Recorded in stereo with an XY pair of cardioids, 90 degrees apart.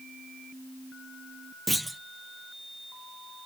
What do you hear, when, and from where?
1.7 s a clunk: 5° right, 0.6 m